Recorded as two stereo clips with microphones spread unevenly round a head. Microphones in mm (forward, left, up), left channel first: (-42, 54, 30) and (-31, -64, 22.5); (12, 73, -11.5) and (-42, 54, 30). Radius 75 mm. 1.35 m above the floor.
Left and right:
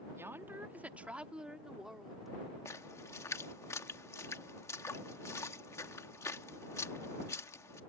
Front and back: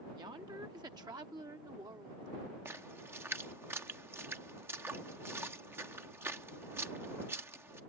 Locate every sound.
0.2 s a woman speaking: 155° right; by 2.3 s 175° right
2.6 s a splash: 160° left